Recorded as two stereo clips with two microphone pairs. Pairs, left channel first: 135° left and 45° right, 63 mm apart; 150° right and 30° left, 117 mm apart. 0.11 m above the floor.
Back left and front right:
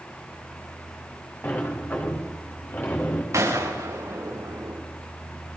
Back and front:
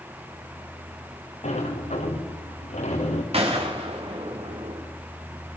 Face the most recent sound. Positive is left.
turn(degrees=-5)